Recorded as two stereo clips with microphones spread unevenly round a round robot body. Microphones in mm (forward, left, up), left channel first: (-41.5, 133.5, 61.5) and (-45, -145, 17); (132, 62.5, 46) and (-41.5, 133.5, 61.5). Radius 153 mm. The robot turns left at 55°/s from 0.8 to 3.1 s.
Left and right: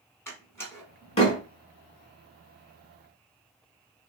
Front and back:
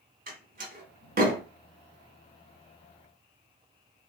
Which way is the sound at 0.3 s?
Straight behind.